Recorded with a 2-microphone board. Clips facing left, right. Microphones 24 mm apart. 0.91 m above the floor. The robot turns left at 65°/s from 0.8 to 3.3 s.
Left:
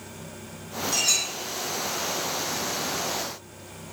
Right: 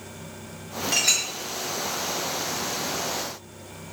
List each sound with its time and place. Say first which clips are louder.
0.9 s a clink: right 2 dB; 70° right (ahead or behind), 0.8 m